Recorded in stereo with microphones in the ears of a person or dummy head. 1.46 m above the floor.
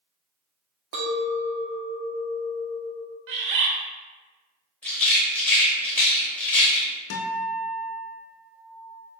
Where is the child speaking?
I don't hear a child speaking.